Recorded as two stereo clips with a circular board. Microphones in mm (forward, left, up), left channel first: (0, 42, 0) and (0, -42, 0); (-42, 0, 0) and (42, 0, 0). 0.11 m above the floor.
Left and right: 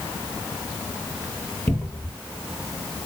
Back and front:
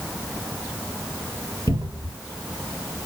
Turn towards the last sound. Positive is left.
turn(degrees=25)